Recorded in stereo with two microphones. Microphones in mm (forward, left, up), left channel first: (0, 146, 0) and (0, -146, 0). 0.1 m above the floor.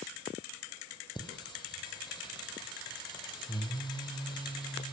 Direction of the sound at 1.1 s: 15° left (ahead or behind).